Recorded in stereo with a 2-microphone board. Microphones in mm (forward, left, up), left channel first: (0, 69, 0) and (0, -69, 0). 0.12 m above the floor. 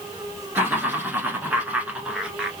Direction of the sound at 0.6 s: 15° right (ahead or behind).